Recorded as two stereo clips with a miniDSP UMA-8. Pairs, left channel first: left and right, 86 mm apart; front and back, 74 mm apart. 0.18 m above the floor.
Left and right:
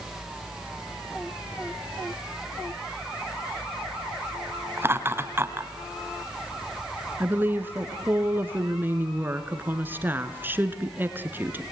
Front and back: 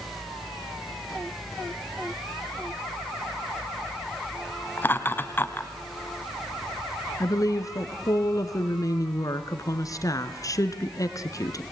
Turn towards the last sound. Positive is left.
turn(degrees=-25)